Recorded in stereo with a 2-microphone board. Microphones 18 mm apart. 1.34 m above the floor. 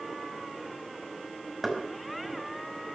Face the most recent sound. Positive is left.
turn(degrees=-15)  # may be behind; listen again after turning